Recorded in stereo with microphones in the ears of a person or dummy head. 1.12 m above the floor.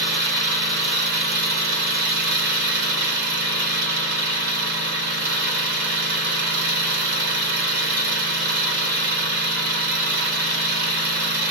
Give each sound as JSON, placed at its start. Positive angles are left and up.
{"t": 0.0, "sound": "an engine running", "side_deg": -55, "distance_m": 1.8}